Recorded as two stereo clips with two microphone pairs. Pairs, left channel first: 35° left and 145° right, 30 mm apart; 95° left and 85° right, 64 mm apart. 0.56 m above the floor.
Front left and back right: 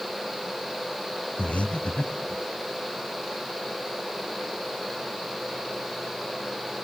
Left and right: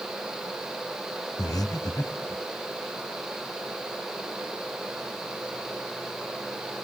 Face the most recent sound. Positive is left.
turn(degrees=80)